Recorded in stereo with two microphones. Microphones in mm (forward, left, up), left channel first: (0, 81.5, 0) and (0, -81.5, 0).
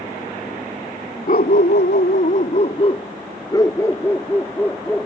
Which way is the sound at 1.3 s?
55° left (ahead or behind).